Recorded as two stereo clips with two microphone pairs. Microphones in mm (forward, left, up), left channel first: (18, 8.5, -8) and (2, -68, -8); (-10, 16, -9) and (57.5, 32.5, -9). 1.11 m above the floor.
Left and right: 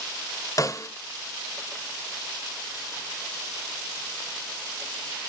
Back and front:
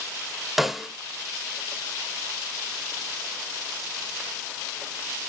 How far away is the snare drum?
About 1.1 m.